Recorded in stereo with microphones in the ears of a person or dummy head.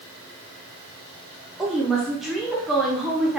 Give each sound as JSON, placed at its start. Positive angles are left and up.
{"t": 1.6, "sound": "a woman speaking", "side_deg": -5, "distance_m": 0.6}